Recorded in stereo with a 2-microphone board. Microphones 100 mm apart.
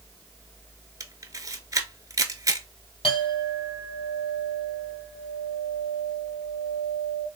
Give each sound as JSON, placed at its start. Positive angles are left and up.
{"t": 1.0, "sound": "a camera shutter", "side_deg": -35, "distance_m": 0.7}
{"t": 3.0, "sound": "a clink", "side_deg": 65, "distance_m": 2.5}